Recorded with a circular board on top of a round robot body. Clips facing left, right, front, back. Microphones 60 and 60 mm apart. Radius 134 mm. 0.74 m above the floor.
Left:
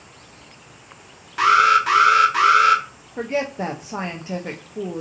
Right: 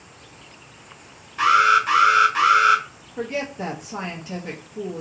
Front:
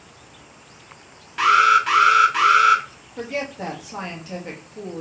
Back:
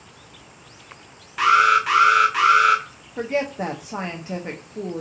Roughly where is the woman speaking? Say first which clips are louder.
Left 3 dB, back 4 dB; behind left.